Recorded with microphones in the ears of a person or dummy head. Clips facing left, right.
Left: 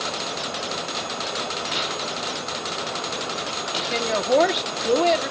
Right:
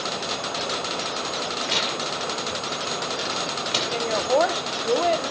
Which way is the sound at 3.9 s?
30° left (ahead or behind).